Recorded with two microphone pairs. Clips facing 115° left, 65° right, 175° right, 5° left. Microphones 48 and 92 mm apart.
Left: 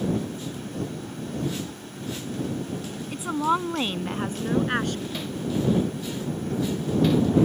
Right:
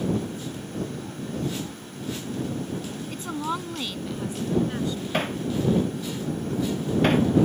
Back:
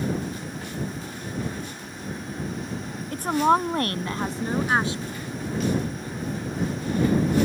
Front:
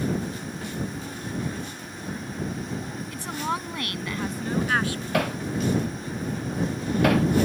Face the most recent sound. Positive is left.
turn(degrees=-20)